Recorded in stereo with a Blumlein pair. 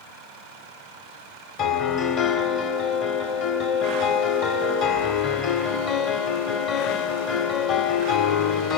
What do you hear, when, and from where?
1.6 s a piano: 40° left, 2 m